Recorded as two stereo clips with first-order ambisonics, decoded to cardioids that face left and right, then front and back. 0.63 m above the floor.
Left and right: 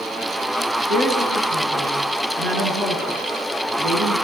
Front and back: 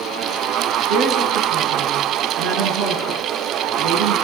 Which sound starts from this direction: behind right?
A woman speaking, at 0.9 s.